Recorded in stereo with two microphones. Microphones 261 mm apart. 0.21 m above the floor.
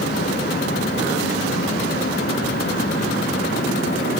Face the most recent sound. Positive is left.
No sound to turn to.